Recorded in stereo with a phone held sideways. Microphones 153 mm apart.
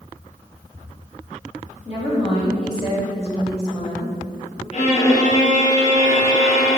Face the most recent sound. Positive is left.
turn(degrees=50)  # may be behind; listen again after turning